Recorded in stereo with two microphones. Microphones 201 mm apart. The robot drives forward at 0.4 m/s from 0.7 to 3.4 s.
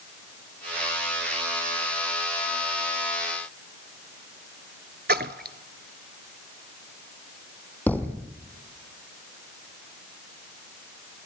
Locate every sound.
5.1 s a splash: 55° right (ahead or behind), 0.9 m
7.9 s a thud: 10° left (ahead or behind), 2.5 m